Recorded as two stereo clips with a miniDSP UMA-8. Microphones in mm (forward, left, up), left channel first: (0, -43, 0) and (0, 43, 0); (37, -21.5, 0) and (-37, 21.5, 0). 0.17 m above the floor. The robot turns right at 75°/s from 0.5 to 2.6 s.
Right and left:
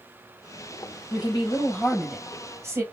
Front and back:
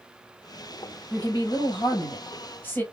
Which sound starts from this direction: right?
A woman speaking, at 1.1 s.